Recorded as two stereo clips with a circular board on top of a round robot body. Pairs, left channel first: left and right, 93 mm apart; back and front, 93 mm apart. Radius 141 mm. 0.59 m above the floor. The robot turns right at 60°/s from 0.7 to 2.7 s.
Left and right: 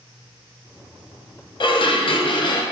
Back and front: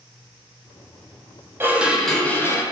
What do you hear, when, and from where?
1.6 s dishes clattering: 65° left, 0.6 m; by 2.6 s 125° left, 0.6 m